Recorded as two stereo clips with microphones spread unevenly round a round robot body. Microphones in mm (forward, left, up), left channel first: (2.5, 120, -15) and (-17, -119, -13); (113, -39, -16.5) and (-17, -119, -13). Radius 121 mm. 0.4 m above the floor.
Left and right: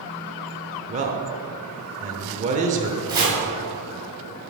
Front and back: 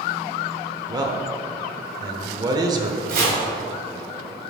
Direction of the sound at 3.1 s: 165° right.